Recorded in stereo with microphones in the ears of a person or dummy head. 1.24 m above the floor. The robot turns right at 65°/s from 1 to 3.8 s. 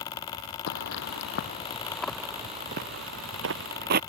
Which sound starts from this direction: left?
Footsteps, at 0.7 s.